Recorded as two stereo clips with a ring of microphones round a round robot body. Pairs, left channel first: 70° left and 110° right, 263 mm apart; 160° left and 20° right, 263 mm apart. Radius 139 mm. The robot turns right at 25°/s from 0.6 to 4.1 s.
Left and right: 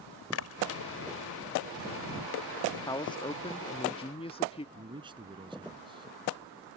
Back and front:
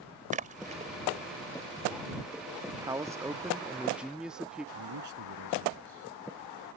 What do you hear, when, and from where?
0.3 s a splash: 40° left; by 0.9 s 45° left
2.7 s a man speaking: 25° left; by 4.7 s 60° left
4.8 s a man speaking: 40° right